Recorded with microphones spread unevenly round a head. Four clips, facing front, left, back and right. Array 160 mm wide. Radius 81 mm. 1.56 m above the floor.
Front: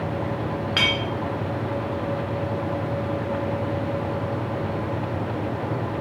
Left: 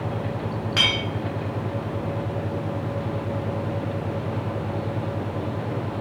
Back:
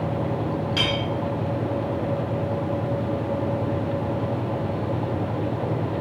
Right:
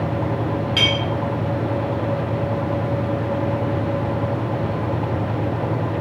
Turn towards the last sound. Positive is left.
turn(degrees=15)